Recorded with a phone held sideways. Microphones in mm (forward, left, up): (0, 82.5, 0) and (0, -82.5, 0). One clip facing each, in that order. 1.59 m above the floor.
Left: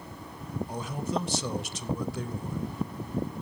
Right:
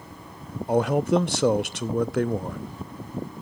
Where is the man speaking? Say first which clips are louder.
Right 14 dB; 65° right (ahead or behind), 0.5 m.